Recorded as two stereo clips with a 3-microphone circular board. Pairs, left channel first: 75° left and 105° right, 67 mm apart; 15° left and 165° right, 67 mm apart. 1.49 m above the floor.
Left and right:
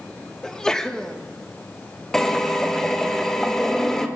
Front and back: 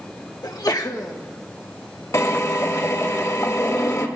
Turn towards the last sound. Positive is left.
turn(degrees=-5)